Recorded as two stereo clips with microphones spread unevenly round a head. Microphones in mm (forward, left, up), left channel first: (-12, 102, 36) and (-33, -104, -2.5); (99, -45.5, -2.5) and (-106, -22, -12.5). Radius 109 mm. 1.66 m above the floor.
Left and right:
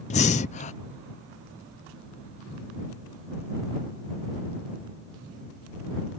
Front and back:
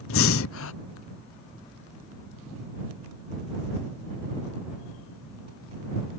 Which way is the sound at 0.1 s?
25° left.